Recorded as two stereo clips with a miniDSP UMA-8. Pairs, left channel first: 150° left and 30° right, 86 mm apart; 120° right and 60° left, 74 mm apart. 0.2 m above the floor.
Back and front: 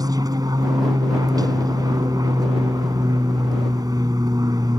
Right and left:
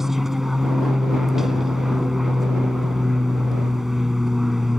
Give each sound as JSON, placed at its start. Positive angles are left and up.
{"t": 0.0, "sound": "an aircraft", "azimuth_deg": -25}